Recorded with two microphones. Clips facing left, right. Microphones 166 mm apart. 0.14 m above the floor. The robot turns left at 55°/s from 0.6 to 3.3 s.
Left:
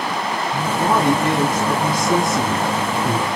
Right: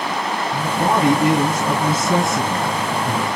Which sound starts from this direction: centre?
A man speaking, at 0.5 s.